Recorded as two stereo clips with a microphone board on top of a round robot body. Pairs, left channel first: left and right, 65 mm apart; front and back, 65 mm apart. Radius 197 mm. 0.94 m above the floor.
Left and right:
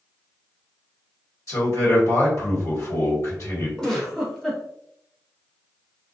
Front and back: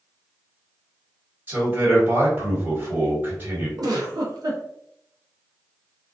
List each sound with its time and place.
1.5 s a man speaking: 120° left, 1.5 m
3.8 s a giggle: 170° left, 0.6 m